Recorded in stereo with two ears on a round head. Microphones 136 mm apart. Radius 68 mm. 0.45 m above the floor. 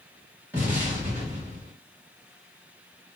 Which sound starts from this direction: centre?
An explosion, at 0.5 s.